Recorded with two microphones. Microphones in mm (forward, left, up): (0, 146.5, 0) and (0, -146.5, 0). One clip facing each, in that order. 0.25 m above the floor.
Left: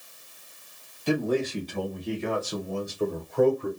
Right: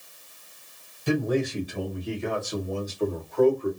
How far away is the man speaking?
About 1.9 m.